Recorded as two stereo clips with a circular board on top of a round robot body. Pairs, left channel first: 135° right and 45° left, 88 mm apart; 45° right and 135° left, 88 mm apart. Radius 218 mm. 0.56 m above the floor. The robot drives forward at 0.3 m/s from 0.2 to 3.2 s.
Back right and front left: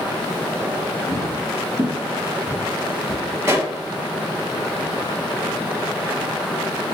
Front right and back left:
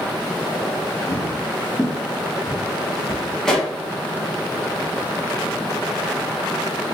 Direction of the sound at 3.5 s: 35° left.